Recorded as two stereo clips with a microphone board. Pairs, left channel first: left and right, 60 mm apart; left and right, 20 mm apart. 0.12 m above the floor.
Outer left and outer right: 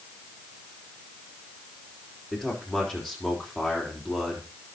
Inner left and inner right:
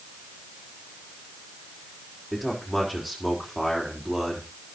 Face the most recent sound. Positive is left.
turn(degrees=5)  # may be behind; listen again after turning